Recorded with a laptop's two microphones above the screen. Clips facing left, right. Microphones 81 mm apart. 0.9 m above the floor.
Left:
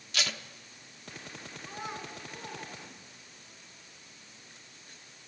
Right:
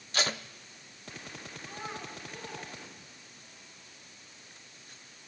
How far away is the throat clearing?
I don't hear throat clearing.